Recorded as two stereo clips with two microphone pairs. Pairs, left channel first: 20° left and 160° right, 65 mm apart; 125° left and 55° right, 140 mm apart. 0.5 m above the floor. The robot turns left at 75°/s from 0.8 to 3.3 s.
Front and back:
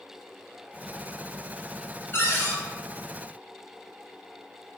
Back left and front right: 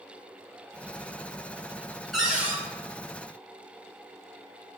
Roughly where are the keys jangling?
No keys jangling in this recording.